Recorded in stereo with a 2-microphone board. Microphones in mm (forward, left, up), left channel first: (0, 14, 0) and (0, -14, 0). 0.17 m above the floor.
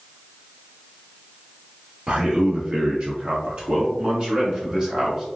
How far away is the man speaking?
About 2.0 m.